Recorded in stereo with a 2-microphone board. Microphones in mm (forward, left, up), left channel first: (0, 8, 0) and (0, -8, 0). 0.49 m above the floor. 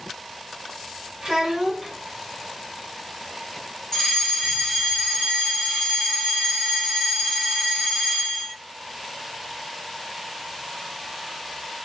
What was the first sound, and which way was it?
A child speaking, 65° right (ahead or behind).